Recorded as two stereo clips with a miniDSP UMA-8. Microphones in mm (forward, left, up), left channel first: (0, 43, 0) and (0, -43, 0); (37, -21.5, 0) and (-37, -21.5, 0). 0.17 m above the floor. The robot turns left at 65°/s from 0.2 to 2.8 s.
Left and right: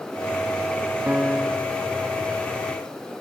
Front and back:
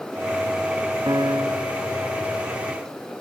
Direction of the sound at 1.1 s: 160° right.